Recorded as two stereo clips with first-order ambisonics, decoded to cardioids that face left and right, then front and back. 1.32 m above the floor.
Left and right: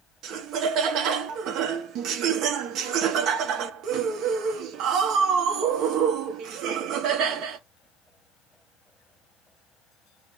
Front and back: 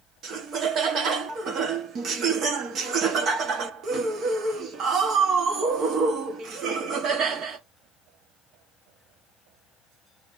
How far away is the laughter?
About 1.1 m.